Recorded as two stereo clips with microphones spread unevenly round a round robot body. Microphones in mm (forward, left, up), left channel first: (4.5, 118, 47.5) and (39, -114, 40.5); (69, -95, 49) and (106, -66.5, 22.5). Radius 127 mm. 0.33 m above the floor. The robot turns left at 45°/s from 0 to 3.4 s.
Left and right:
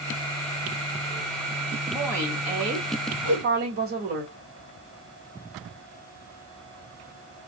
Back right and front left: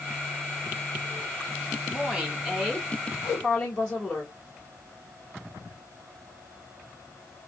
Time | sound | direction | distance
1.9 | a woman speaking | 5° left | 1.6 m
3.2 | a whoosh | 130° right | 1.6 m